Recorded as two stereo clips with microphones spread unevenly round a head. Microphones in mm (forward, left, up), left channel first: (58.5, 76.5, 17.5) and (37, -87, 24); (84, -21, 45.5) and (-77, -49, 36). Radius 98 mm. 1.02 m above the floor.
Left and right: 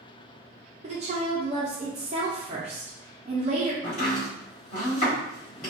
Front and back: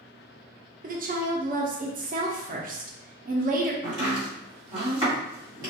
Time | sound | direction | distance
0.8 | a woman speaking | 150° right | 0.7 m
3.8 | chopping | 125° left | 1.5 m